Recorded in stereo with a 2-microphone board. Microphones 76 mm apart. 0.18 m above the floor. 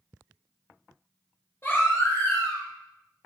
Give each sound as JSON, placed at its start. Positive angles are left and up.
{"t": 1.6, "sound": "a baby crying", "side_deg": 25, "distance_m": 4.0}